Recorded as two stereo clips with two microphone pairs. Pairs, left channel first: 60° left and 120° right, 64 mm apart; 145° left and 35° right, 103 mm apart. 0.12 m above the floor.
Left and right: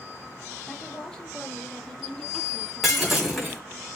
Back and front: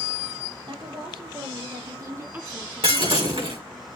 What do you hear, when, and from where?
0.7 s a woman speaking: 20° right, 2.5 m; by 3.7 s 155° left, 1.4 m
2.8 s breaking glass: 35° right, 5 m